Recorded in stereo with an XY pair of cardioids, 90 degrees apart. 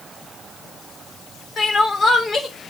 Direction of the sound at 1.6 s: 40° left.